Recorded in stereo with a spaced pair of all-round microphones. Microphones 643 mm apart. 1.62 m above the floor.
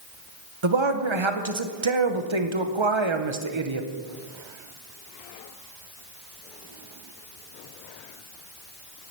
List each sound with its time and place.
0.6 s a man speaking: 45° right (ahead or behind), 1.0 m